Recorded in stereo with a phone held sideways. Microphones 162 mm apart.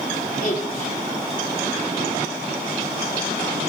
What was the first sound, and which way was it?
A woman speaking, 60° left (ahead or behind).